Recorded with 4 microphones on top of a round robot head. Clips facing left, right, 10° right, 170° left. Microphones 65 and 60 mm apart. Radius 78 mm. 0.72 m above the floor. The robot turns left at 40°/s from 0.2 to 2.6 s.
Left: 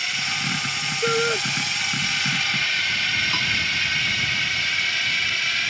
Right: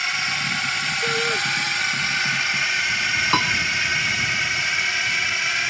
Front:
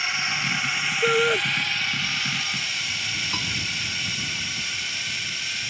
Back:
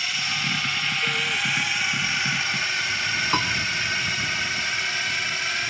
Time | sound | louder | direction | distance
0.0 | a drone | right 3 dB, front 1 dB | 50° right | ?
1.0 | a shout | left 3 dB, front 10 dB | 25° left | ?
3.3 | a piano | right 5 dB, back 7 dB | 130° right | ?